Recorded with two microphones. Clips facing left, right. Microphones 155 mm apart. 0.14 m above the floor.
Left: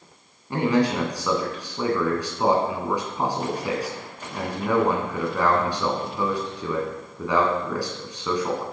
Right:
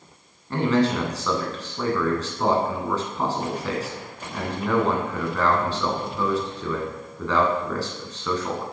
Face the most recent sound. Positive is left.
turn(degrees=15)  # may be behind; listen again after turning